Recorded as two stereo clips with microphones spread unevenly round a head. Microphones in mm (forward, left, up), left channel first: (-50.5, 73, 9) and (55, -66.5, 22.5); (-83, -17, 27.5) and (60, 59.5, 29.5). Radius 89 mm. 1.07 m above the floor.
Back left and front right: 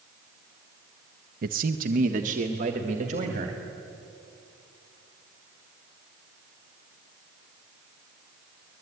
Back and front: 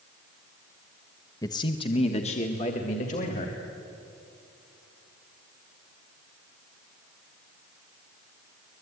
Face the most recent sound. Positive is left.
turn(degrees=-105)